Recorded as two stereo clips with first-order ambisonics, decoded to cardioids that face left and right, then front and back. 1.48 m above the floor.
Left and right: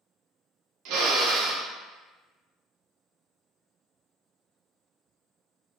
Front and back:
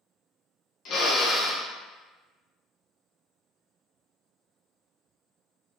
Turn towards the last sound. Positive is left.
turn(degrees=-55)